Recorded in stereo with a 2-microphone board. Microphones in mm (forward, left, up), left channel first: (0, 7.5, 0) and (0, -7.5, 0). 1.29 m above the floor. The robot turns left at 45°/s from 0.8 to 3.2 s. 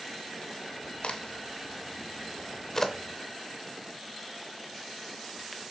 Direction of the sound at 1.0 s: 75° left (ahead or behind).